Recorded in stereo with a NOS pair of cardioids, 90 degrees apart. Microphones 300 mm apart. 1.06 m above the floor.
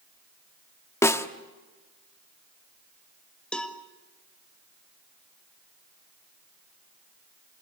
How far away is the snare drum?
About 1.2 m.